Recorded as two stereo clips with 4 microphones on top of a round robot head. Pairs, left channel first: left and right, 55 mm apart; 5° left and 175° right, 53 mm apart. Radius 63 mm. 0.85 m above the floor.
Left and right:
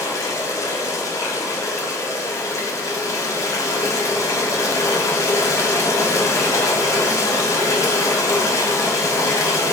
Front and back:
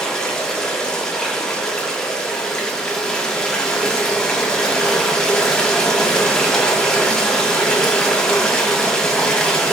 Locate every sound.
0.0 s running water: 85° left, 0.7 m